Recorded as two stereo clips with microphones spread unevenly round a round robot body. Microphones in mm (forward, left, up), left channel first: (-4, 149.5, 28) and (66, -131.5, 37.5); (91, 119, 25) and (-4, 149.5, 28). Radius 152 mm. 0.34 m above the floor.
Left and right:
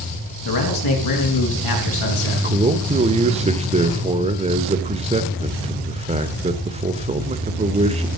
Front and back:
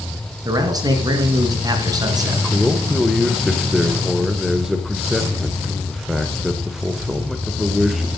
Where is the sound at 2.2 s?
110° right, 0.9 m.